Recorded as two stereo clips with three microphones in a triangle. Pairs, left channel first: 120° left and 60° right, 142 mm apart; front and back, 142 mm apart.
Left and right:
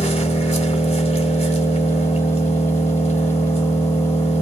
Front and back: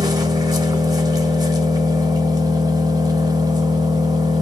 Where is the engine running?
125° left, 0.8 m.